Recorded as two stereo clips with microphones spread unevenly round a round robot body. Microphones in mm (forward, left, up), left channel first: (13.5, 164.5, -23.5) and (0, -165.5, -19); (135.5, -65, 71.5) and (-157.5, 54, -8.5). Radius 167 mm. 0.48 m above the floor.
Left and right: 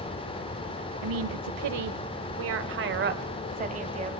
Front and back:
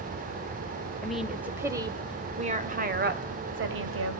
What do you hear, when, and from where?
1.0 s a woman speaking: 115° right, 2.0 m; by 4.2 s 165° right, 2.5 m